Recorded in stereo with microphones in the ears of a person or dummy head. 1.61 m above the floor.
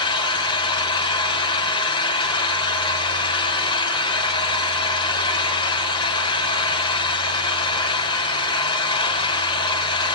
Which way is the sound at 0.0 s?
30° left (ahead or behind).